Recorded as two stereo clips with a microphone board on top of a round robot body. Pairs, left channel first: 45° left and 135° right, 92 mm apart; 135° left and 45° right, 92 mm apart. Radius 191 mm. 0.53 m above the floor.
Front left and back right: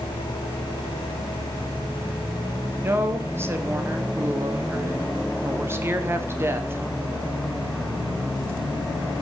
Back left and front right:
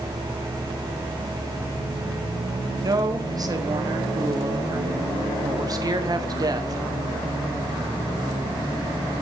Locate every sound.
2.8 s a woman speaking: 80° right, 1.9 m